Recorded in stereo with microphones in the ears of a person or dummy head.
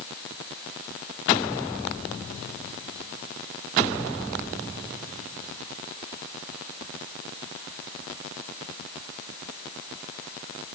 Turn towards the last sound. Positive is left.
No sound to turn to.